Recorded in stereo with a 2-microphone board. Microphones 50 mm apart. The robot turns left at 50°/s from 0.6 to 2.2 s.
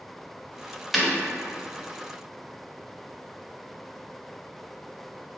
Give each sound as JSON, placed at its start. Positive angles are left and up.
{"t": 0.9, "sound": "breaking glass", "side_deg": 0, "distance_m": 0.6}